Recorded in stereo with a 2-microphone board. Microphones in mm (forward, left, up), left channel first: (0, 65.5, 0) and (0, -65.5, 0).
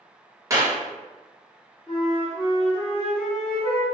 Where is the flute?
50° left (ahead or behind), 1.6 m.